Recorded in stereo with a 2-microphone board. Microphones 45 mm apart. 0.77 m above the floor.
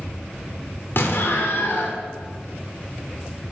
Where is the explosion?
55° left (ahead or behind), 1.1 m.